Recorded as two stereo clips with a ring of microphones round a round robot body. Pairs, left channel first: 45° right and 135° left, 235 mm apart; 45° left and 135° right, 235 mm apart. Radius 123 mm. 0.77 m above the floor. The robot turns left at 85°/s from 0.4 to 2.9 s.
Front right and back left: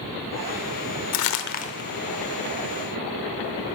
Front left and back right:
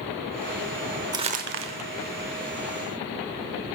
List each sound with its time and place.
1.1 s crumpling: 60° right, 0.7 m; by 1.9 s 120° right, 0.7 m